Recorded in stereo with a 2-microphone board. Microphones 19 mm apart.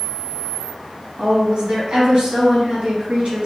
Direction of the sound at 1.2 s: 60° right (ahead or behind).